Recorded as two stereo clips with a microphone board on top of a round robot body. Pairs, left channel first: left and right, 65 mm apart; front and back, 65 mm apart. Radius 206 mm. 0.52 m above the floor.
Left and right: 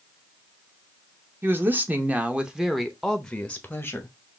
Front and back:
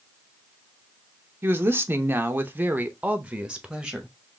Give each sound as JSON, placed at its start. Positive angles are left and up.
{"t": 1.4, "sound": "a woman speaking", "azimuth_deg": -135, "distance_m": 1.4}